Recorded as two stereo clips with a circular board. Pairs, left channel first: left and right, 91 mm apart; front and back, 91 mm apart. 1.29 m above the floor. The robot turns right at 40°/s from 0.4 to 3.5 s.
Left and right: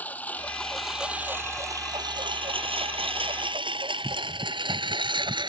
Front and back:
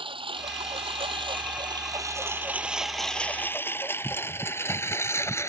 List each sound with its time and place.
0.0 s a lawn mower: 165° left; by 5.5 s 60° right